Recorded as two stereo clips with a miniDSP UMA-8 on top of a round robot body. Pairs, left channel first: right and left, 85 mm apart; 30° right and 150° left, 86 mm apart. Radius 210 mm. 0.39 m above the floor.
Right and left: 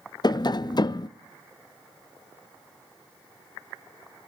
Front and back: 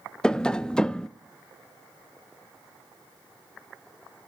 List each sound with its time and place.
0.2 s tapping: 110° right, 0.6 m